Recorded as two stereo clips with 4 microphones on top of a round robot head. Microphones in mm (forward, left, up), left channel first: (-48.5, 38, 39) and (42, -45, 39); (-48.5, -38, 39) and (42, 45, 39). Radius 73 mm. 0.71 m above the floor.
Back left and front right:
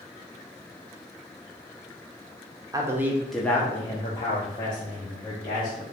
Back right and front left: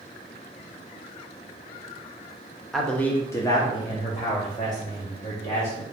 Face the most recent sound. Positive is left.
turn(degrees=175)